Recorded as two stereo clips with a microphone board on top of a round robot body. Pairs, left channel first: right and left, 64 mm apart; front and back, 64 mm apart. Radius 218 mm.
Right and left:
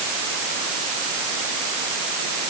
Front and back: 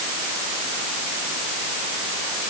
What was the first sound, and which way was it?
Only background noise.